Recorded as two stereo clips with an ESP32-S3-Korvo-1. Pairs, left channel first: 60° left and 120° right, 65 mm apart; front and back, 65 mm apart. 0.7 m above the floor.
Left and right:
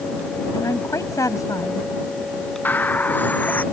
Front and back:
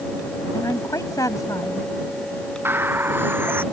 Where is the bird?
125° left.